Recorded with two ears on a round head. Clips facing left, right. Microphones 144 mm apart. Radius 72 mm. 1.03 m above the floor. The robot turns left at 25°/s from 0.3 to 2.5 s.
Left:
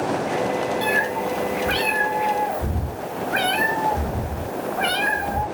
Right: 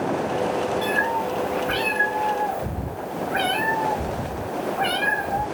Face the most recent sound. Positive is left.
turn(degrees=90)